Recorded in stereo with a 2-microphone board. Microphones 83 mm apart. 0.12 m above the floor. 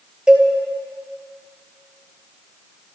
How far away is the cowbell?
About 1.2 m.